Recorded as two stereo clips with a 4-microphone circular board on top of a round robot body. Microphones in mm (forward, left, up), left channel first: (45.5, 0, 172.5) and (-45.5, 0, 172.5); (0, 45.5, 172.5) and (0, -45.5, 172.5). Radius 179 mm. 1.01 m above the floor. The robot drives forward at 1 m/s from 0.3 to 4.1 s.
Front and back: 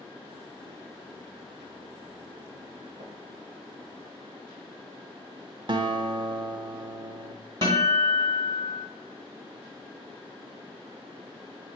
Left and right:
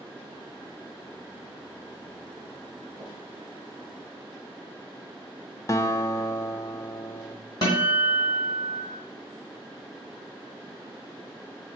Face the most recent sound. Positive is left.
turn(degrees=140)